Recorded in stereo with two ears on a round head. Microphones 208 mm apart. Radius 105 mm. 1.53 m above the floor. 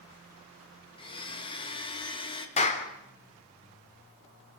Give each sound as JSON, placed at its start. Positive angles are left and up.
{"t": 1.0, "sound": "a blender", "side_deg": 25, "distance_m": 2.5}
{"t": 2.6, "sound": "a clap", "side_deg": 30, "distance_m": 3.5}